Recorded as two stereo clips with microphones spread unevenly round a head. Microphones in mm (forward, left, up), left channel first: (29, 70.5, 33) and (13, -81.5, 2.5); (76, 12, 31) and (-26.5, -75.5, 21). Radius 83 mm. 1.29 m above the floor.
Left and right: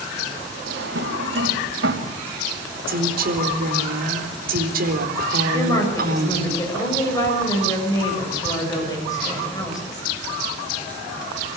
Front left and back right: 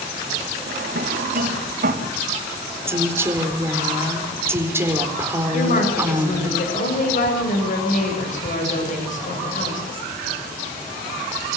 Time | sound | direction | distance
0.7 | a drawer | 120° right | 3.5 m
2.9 | a woman speaking | 65° right | 4 m
5.5 | a woman speaking | 15° left | 7.5 m